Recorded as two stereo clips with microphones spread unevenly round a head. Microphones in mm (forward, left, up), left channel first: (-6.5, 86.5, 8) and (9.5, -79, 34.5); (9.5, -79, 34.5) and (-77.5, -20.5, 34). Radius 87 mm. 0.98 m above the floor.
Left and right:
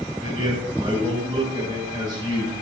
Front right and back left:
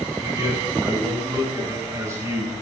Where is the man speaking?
150° right, 7 m.